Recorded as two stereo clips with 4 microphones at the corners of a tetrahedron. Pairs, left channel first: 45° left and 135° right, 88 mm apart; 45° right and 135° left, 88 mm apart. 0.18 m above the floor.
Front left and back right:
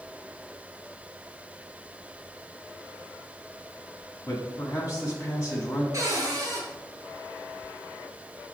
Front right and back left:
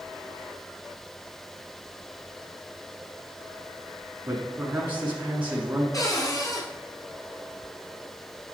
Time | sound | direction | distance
4.3 | a man speaking | 75° left | 1.3 m
5.9 | a cupboard door | 90° right | 1.8 m